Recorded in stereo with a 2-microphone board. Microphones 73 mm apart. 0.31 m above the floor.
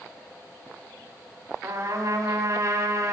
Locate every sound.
1.6 s a trumpet: 45° right (ahead or behind), 2.5 m